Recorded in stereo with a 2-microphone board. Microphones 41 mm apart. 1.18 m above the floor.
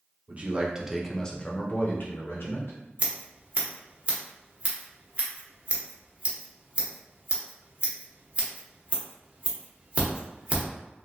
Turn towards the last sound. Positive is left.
turn(degrees=-35)  # may be behind; listen again after turning